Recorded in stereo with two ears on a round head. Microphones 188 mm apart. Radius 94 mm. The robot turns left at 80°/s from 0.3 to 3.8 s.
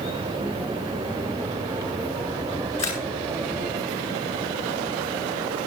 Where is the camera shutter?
25° left (ahead or behind), 9 m; by 3.0 s 45° left (ahead or behind), 9 m.